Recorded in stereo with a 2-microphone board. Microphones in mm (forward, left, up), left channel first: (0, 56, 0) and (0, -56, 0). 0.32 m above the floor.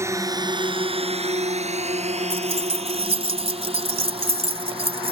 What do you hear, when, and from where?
0.0 s a drone: 25° right (ahead or behind); by 5.1 s 50° right (ahead or behind)
2.3 s keys jangling: 65° right (ahead or behind)